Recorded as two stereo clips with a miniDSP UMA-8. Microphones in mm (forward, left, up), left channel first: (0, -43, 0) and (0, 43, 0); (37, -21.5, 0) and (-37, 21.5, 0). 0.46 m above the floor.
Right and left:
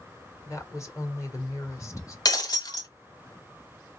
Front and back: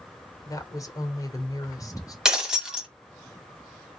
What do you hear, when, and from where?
0.5 s a woman speaking: 55° right, 1.7 m
2.2 s breaking glass: 125° right, 1.4 m